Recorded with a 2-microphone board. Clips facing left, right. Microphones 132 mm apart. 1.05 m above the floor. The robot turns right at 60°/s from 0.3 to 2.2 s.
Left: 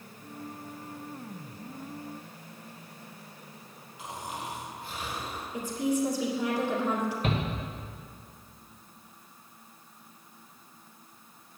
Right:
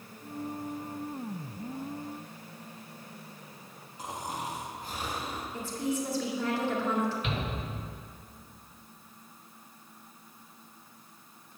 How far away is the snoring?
About 1.6 m.